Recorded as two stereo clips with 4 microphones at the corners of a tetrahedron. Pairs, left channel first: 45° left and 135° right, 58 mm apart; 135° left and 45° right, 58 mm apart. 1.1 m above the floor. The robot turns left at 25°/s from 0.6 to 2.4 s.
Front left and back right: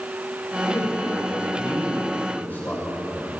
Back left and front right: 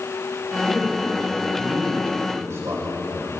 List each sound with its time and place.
0.6 s a man speaking: 25° left, 4.5 m; by 3.4 s 20° right, 4.5 m